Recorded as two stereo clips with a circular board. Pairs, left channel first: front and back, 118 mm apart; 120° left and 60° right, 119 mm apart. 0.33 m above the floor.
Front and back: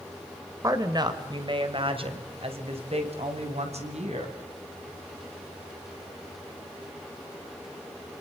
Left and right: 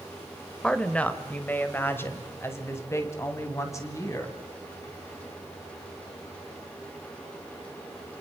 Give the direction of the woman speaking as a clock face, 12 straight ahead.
6 o'clock.